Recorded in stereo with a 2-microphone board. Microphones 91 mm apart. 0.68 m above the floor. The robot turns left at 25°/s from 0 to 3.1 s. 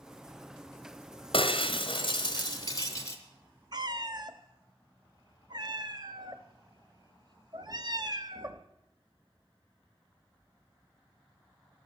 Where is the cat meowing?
45° right (ahead or behind), 0.7 m.